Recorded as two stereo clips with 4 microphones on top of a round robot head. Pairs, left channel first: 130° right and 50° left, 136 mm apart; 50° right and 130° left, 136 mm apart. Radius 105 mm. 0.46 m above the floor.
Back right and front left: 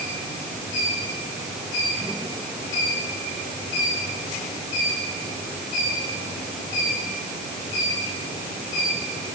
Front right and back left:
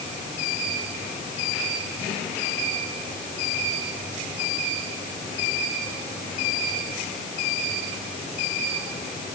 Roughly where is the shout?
No shout in this recording.